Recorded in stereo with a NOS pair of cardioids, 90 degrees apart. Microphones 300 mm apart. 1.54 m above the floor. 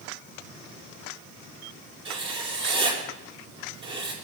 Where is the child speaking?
No child speaking in this recording.